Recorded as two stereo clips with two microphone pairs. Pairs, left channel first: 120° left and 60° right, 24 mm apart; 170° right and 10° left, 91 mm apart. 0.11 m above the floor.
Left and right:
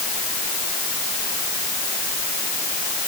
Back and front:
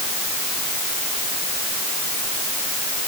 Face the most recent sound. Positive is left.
No sound to turn to.